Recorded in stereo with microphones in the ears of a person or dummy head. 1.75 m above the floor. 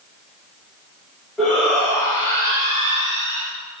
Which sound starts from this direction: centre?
A shout, at 1.4 s.